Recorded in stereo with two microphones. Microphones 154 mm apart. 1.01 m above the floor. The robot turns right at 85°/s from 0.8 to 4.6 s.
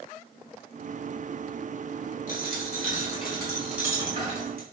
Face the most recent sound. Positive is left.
turn(degrees=-100)